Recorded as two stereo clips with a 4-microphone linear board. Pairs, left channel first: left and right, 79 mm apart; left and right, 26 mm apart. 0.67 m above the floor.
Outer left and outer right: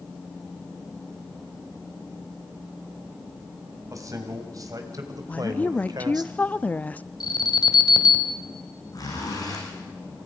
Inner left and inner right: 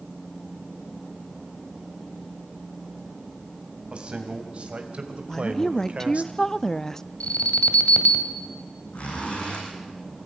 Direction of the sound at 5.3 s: 20° left (ahead or behind).